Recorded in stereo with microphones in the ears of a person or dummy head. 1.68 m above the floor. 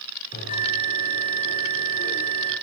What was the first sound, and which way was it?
A bell, 45° left (ahead or behind).